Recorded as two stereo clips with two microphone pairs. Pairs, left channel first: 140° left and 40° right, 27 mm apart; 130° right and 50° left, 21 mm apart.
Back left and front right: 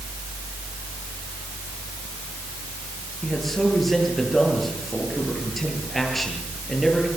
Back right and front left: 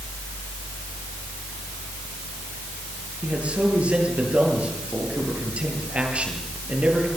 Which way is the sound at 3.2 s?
55° left.